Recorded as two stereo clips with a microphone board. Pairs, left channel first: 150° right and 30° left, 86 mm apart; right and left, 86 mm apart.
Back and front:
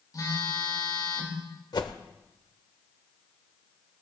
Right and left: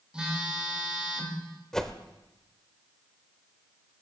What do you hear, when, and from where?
0.1 s a phone buzzing: 170° left, 3.5 m
1.7 s a whoosh: 175° right, 0.9 m